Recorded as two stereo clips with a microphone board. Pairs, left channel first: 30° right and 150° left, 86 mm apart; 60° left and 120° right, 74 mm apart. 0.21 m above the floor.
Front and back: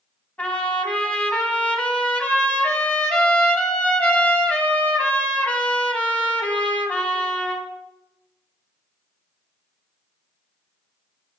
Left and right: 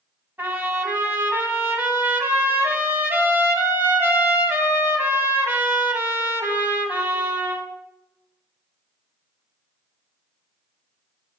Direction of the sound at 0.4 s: 90° right.